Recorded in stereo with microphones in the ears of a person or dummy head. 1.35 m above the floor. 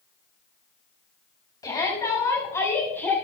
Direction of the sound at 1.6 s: 15° left (ahead or behind).